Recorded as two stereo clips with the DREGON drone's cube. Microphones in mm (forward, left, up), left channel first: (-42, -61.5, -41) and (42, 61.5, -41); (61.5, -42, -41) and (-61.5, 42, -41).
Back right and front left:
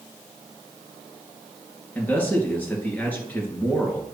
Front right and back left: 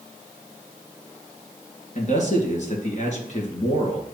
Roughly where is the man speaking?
Ahead right.